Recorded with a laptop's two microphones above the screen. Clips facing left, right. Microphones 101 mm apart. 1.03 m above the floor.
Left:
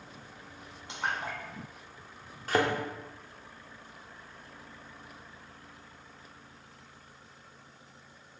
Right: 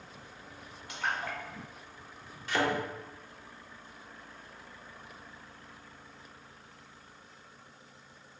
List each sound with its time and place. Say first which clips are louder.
0.9 s a splash: even; 25° left (ahead or behind), 1.3 m
2.5 s a thud: left 2 dB; 40° left (ahead or behind), 0.8 m